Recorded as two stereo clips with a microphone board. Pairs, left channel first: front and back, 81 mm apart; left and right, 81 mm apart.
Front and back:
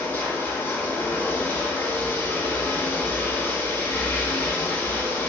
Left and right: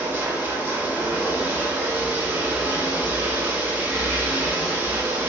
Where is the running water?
45° right, 0.9 m.